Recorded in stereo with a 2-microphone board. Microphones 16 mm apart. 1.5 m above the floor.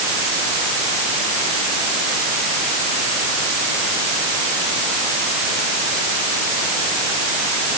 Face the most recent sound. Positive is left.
No sound to turn to.